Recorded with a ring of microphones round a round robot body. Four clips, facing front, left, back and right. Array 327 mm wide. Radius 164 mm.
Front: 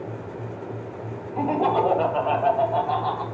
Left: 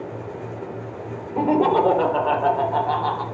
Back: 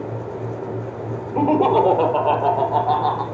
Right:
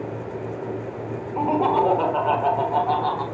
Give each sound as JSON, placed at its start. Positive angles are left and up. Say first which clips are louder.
{"t": 1.4, "sound": "laughter", "louder": "left 2 dB, back 6 dB", "azimuth_deg": 150, "distance_m": 4.5}